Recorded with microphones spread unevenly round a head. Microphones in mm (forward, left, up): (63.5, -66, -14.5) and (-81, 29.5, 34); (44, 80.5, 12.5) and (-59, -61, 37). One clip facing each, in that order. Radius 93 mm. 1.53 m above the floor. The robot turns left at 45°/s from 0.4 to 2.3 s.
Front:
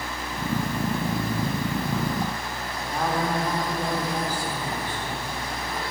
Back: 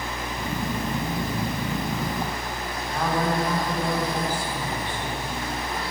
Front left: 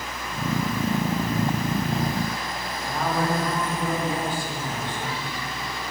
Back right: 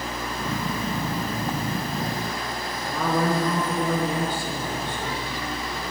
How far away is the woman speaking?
About 3.5 m.